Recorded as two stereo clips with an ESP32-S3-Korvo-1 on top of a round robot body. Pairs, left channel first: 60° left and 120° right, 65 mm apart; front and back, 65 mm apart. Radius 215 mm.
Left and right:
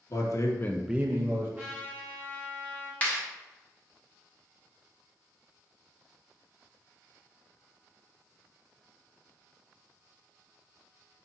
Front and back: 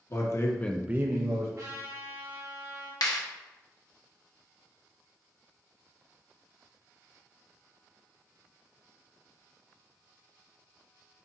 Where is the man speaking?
30° left, 1.2 m; by 1.5 s 160° right, 1.1 m.